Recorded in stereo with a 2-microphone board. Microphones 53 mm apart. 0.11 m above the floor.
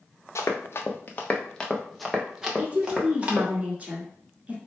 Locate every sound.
0.3 s running footsteps: 65° left (ahead or behind), 1.0 m; by 3.5 s 25° right (ahead or behind), 1.9 m
2.6 s a woman speaking: 25° right (ahead or behind), 1.3 m